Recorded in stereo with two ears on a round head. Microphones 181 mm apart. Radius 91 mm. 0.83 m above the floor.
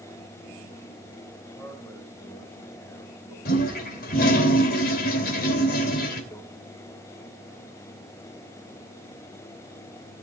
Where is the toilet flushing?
50° left (ahead or behind), 2.5 m.